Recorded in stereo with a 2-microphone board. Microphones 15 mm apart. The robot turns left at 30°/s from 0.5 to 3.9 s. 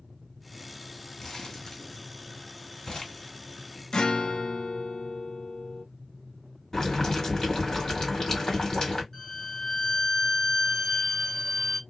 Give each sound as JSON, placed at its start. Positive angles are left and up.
{"t": 1.2, "sound": "crumpling", "side_deg": 50, "distance_m": 1.6}
{"t": 3.9, "sound": "a guitar", "side_deg": 70, "distance_m": 0.7}
{"t": 6.7, "sound": "boiling", "side_deg": 45, "distance_m": 1.5}
{"t": 9.1, "sound": "a violin", "side_deg": 30, "distance_m": 1.2}